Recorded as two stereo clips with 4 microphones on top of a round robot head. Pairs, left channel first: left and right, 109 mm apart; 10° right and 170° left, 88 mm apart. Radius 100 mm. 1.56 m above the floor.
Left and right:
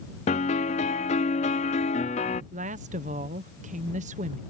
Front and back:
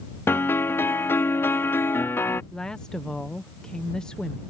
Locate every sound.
0.3 s a piano: 55° left
2.5 s a woman speaking: 90° right